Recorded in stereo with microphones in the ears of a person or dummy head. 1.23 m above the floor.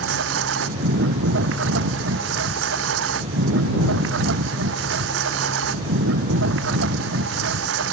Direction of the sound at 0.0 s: 75° right (ahead or behind).